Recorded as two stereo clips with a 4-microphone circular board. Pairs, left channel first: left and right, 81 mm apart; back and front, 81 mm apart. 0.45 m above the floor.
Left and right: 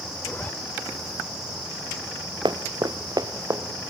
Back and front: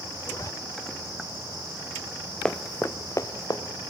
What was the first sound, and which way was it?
A zipper, 150° left.